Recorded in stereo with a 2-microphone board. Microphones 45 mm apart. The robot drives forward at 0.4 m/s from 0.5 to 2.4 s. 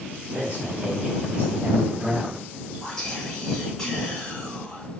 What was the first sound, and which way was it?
A man speaking, 35° right (ahead or behind).